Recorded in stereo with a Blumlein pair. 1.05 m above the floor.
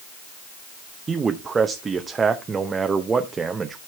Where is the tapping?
I don't hear tapping.